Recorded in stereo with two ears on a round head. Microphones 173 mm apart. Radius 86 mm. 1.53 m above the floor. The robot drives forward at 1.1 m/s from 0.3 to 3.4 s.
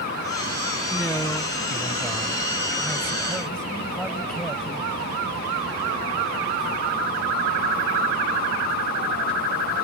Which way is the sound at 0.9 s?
5° left (ahead or behind).